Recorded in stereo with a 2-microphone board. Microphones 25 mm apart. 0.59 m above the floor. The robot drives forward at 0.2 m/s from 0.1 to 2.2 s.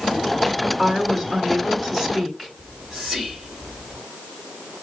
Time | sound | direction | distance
0.8 | a woman speaking | 5° left (ahead or behind) | 3 m
2.6 | whispering | 20° right (ahead or behind) | 2.5 m